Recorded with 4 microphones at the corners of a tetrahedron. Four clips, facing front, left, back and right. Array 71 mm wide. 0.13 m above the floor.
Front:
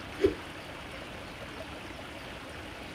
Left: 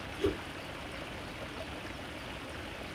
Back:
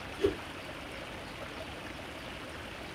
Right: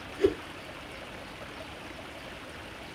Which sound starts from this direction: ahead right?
A whoosh, at 0.1 s.